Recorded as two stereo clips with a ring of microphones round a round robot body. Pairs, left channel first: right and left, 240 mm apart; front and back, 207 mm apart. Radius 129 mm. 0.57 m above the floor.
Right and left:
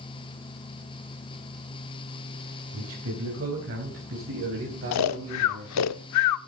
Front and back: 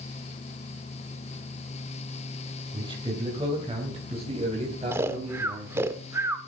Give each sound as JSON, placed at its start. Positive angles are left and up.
{"t": 2.7, "sound": "a man speaking", "azimuth_deg": 115, "distance_m": 4.0}
{"t": 4.9, "sound": "snoring", "azimuth_deg": -100, "distance_m": 0.6}